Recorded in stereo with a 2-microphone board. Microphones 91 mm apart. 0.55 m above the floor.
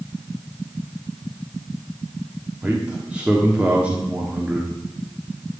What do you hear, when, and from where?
2.6 s a man speaking: 15° right (ahead or behind), 1.2 m